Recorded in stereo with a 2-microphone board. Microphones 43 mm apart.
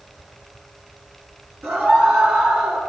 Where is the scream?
55° right (ahead or behind), 8 m; by 2.8 s 45° right (ahead or behind), 8 m.